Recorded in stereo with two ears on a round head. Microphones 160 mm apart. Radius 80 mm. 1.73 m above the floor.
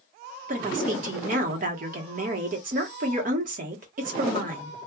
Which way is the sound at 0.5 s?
50° right (ahead or behind).